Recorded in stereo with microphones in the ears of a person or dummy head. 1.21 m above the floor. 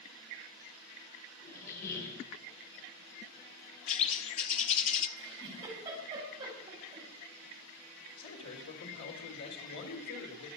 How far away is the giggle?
About 7.5 m.